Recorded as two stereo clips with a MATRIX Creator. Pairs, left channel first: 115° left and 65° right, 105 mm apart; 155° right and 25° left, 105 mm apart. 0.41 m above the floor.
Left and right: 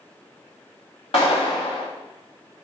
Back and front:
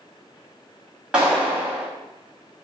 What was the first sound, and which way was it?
A clap, 105° left.